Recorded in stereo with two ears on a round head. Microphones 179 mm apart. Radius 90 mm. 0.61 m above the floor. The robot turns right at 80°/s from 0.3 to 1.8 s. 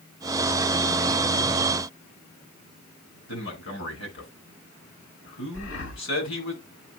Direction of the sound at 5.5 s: 70° left (ahead or behind).